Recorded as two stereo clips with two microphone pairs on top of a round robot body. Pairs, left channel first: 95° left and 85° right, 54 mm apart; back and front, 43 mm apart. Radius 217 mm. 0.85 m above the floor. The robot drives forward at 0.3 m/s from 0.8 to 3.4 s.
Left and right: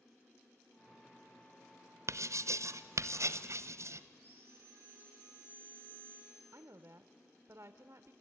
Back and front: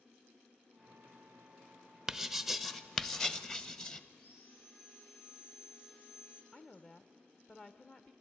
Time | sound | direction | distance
2.1 | writing | 80° right | 1.0 m
4.1 | sawing | 140° right | 4.5 m
6.5 | a woman speaking | 115° right | 0.7 m